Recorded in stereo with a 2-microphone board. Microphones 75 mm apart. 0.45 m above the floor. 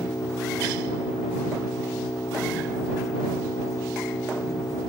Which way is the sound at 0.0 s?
50° left (ahead or behind).